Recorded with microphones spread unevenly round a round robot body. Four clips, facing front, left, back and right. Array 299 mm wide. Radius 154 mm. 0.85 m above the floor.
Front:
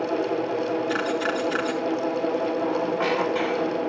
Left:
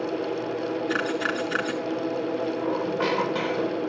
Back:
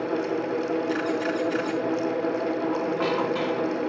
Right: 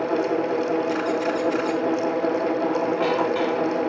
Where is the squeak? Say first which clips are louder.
Right 4 dB, front 1 dB; 110° left, 2.5 m.